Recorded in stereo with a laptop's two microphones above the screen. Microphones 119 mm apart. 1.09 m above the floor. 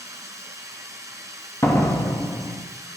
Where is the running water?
25° right (ahead or behind), 1.6 m.